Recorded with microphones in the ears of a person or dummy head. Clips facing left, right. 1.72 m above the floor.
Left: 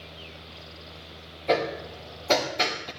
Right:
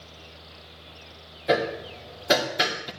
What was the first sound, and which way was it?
Hammering, 20° right (ahead or behind).